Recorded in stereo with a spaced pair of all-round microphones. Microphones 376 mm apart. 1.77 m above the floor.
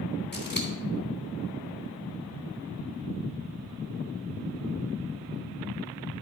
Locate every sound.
0.3 s scissors: 25° left (ahead or behind), 3 m